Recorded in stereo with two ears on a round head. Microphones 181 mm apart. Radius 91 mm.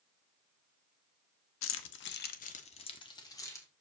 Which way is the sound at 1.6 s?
70° left (ahead or behind).